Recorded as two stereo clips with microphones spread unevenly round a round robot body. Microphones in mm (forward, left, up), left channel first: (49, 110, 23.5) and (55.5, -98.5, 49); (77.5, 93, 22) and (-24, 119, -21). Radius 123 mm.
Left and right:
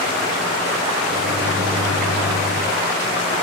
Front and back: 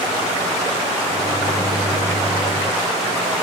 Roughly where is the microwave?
Right.